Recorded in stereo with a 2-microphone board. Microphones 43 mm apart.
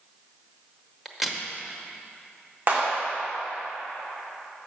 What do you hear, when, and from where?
1.1 s a crack: 5° right (ahead or behind), 0.8 m
2.7 s a clap: 40° right (ahead or behind), 1.9 m